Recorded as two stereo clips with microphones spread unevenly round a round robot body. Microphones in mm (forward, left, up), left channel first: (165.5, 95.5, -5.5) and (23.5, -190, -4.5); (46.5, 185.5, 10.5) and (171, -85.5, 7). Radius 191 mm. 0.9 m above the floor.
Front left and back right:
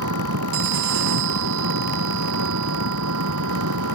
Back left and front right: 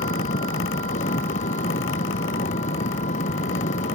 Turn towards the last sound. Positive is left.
turn(degrees=-170)